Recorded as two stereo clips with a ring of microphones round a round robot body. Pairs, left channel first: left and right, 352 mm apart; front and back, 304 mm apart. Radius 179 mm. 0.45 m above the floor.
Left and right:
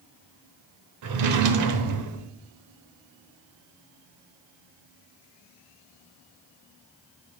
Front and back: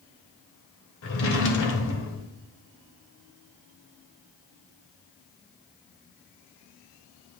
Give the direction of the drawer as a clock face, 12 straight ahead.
2 o'clock.